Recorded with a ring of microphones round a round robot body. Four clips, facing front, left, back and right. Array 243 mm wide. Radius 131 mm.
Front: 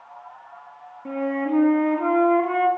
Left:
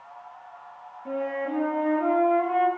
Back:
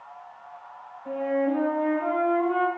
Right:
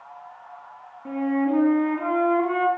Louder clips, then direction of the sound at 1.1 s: Right 6 dB, front 1 dB; 25° right.